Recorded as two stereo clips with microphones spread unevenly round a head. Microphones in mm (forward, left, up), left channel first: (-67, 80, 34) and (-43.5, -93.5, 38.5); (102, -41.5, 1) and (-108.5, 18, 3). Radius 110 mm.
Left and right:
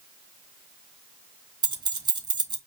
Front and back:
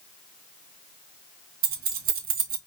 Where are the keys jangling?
145° right, 1.2 m.